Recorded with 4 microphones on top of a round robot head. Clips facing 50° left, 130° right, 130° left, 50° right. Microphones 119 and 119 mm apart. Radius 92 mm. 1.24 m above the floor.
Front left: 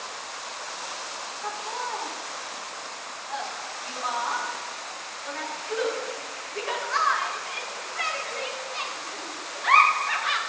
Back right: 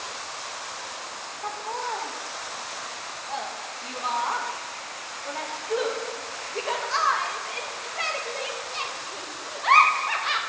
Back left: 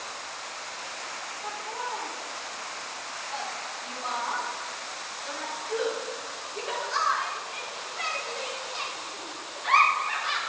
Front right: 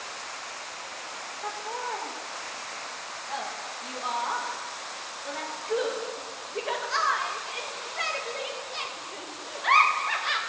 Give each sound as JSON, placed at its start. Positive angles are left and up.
{"t": 1.4, "sound": "laughter", "azimuth_deg": -75, "distance_m": 2.0}